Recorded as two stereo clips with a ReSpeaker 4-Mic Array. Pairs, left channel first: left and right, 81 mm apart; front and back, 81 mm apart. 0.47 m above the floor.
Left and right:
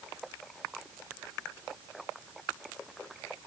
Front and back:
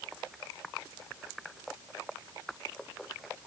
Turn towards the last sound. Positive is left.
No sound to turn to.